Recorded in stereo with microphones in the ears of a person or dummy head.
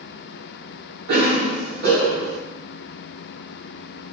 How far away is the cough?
About 2.0 m.